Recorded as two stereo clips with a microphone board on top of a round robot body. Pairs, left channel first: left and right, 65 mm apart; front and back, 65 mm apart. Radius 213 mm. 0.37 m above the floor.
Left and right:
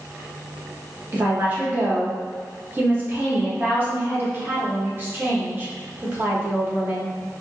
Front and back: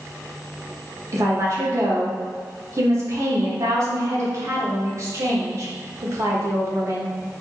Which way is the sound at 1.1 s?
145° right.